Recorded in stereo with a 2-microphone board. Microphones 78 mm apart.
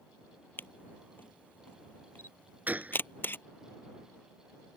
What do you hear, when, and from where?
0.6 s a camera shutter: 25° left (ahead or behind)
2.7 s a gunshot: 20° right (ahead or behind)